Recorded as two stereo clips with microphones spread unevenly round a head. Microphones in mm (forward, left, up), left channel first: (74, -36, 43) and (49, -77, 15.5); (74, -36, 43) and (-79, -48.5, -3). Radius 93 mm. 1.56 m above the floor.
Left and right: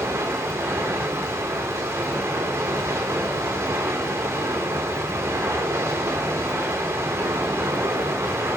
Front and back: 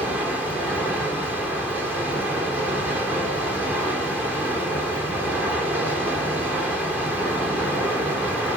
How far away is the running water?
About 3 m.